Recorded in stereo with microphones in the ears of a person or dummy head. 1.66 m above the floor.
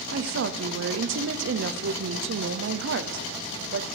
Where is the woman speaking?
60° right (ahead or behind), 0.6 m.